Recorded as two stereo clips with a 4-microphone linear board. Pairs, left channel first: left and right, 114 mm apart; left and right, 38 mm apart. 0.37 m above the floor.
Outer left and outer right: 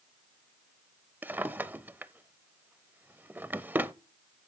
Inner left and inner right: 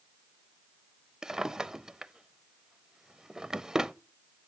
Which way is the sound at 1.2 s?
15° right (ahead or behind).